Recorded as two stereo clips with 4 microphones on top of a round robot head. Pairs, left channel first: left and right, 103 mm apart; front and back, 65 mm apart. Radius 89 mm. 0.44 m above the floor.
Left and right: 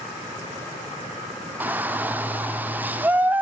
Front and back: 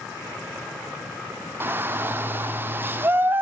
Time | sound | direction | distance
1.6 | a shout | 150° right | 1.0 m